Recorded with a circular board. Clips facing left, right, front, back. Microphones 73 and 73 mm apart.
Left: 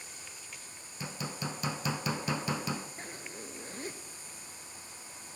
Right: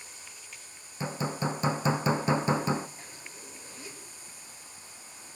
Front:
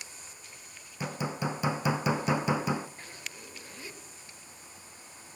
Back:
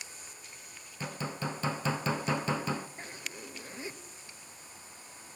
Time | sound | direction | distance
1.0 | hammering | 65° right | 0.7 m
3.0 | a zipper | 120° left | 2.5 m